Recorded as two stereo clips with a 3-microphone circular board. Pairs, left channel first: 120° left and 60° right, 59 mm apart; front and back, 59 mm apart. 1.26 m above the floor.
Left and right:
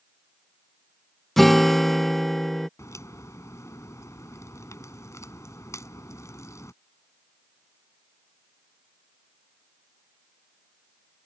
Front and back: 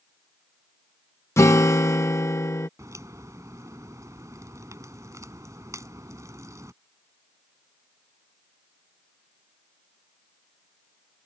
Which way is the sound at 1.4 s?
35° left.